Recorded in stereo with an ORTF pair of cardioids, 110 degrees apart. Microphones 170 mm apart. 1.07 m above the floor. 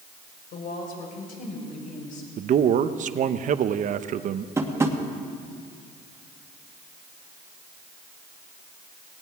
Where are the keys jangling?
No keys jangling in this recording.